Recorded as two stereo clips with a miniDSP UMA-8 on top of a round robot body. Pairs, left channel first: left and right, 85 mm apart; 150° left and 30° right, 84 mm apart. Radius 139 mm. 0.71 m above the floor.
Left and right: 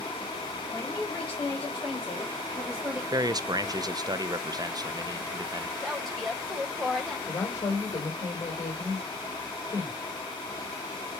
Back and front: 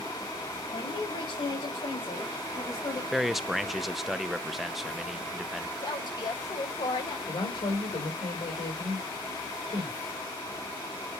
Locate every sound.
0.7 s a man speaking: 160° left, 5.5 m; by 3.0 s 170° right, 3 m
3.1 s a man speaking: 120° right, 0.8 m
5.8 s a woman speaking: 175° left, 3.5 m
7.3 s a woman speaking: 140° left, 3 m